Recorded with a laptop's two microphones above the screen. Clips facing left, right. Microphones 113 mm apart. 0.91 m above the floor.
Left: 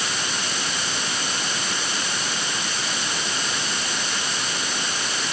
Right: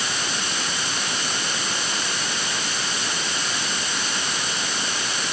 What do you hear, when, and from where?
Only background noise.